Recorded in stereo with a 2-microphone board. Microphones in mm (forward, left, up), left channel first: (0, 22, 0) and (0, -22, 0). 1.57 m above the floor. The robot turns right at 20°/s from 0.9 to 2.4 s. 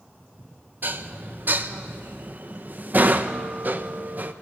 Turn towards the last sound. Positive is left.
turn(degrees=-45)  # may be behind; listen again after turning